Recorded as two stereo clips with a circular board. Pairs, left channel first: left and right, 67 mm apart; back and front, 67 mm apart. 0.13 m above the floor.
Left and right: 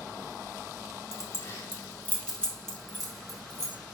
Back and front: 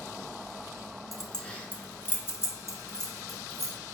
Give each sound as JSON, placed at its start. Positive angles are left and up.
{"t": 1.1, "sound": "keys jangling", "azimuth_deg": 90, "distance_m": 0.9}